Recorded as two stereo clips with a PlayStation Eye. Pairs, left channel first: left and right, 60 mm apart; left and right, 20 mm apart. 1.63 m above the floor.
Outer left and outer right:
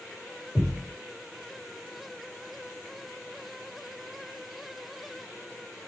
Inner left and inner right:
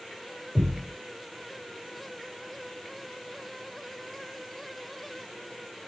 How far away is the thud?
About 1.5 m.